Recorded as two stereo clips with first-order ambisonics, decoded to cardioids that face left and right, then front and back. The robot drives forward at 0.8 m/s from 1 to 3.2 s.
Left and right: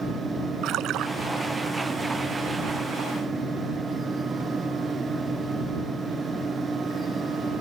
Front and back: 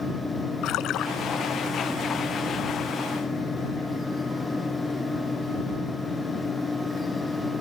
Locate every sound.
0.6 s a splash: 45° right; by 1.1 s 50° right